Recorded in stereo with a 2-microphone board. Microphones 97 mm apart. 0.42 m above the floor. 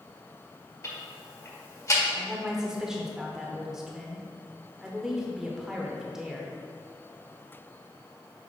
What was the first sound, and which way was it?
Ticking, 30° left (ahead or behind).